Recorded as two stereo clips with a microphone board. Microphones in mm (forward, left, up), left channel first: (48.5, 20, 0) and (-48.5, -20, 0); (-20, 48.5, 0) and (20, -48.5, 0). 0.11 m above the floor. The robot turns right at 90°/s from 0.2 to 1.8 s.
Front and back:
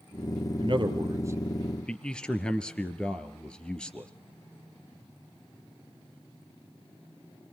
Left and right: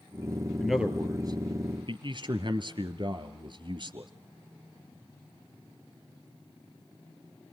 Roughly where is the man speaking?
Behind.